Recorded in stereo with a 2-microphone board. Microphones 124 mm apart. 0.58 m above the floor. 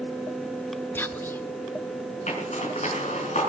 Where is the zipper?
65° left (ahead or behind), 5 m.